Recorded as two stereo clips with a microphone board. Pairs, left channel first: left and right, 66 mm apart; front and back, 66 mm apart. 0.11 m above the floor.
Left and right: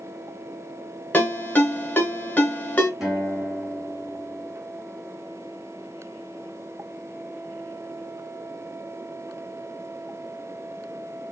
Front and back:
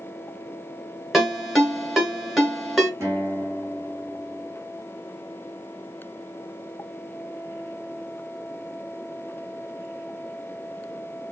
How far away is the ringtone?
About 1.1 m.